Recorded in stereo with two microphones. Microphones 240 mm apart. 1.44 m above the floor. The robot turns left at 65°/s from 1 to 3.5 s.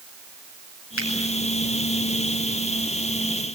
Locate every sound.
1.0 s a finger snap: 60° left (ahead or behind), 8.5 m; by 1.1 s 65° left (ahead or behind), 8.5 m